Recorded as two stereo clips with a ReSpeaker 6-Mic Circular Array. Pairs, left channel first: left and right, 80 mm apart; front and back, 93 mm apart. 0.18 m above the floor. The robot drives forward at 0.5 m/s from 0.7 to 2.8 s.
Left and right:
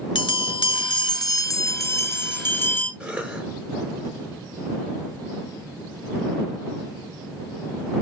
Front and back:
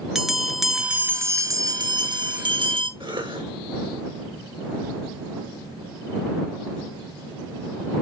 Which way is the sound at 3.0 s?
165° right.